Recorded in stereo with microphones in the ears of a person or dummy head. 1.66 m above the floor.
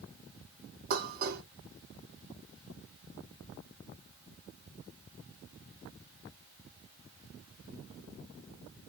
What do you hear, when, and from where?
0.9 s dishes clattering: 50° right (ahead or behind), 1.6 m